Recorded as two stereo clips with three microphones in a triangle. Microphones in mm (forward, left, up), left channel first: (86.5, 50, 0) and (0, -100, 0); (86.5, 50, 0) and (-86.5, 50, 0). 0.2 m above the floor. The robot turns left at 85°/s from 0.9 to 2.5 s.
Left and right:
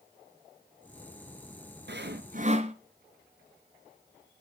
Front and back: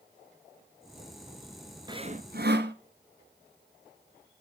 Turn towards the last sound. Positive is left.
turn(degrees=-170)